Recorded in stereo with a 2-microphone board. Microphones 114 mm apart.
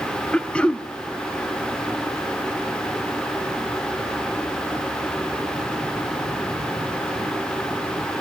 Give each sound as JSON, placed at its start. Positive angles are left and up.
{"t": 0.3, "sound": "throat clearing", "side_deg": 10, "distance_m": 0.6}